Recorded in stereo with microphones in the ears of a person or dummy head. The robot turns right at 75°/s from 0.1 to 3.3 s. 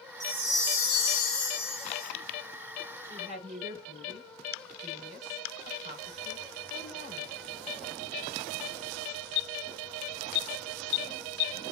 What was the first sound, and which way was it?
A chime, 25° right.